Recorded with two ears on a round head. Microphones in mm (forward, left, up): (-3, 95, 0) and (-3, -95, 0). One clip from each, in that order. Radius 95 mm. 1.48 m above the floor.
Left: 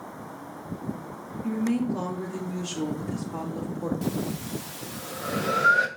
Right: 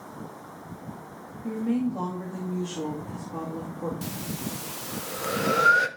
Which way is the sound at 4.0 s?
20° right (ahead or behind).